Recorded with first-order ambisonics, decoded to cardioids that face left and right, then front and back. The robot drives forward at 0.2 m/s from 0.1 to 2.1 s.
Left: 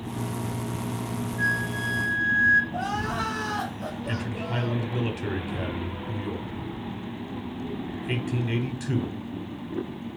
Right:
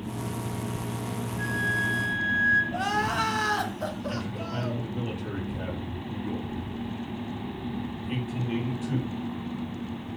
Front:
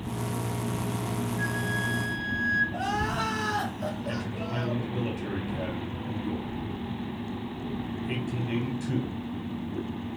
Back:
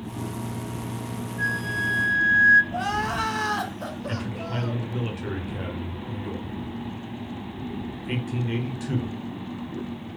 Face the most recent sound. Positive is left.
turn(degrees=115)